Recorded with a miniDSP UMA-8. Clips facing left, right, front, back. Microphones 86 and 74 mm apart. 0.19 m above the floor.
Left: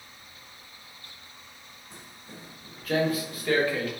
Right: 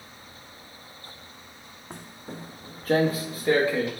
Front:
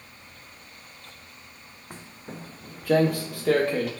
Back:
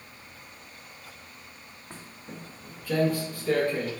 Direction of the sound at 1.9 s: 75° right.